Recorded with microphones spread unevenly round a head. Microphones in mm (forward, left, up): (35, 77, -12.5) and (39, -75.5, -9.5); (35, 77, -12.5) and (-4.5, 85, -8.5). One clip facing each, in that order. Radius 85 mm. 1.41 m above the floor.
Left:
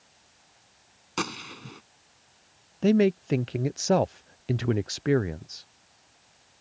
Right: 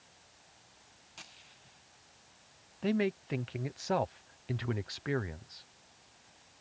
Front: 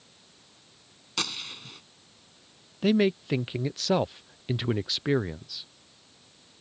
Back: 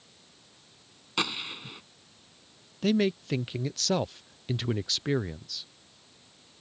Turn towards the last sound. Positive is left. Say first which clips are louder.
# left 10 dB, front 2 dB
turn(degrees=60)